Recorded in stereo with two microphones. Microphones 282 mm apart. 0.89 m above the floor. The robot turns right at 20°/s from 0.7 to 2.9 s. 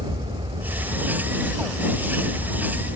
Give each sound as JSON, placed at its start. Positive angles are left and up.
{"t": 0.0, "sound": "an aircraft", "azimuth_deg": -20}